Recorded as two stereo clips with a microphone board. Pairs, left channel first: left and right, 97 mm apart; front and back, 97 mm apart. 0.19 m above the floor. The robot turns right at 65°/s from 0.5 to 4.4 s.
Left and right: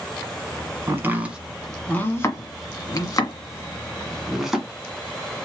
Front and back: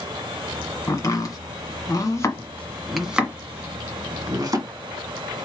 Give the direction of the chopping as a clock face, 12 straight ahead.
2 o'clock.